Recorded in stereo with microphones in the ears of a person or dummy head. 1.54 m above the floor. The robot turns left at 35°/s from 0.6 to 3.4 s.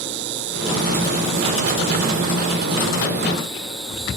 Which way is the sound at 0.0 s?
80° right.